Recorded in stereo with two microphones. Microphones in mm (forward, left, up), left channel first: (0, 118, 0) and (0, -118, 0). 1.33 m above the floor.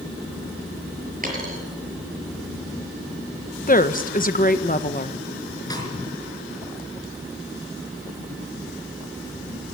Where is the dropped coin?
35° right (ahead or behind), 6 m.